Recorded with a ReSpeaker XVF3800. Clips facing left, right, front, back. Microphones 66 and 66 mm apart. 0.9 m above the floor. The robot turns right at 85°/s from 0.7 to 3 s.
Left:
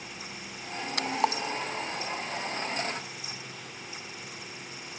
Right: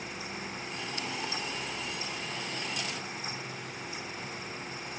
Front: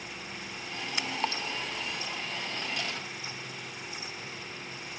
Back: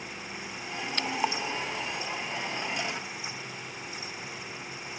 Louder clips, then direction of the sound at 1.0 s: Left 11 dB, back 3 dB; 80° left.